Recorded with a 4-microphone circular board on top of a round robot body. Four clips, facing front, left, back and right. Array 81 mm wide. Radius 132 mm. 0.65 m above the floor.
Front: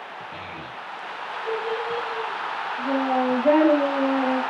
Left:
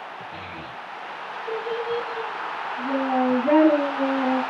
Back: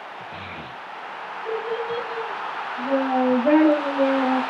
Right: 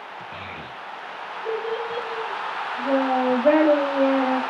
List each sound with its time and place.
0.3 s a child speaking: 90° right, 2.5 m